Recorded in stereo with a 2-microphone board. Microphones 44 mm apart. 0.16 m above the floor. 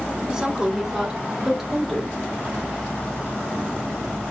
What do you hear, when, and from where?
0.3 s a woman speaking: 15° right (ahead or behind), 1.0 m; by 2.1 s centre (ahead or behind), 1.5 m